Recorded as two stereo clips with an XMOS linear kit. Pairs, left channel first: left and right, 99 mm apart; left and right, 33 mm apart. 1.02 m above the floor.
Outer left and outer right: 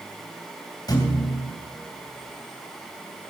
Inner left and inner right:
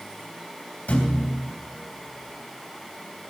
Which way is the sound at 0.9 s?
40° left (ahead or behind).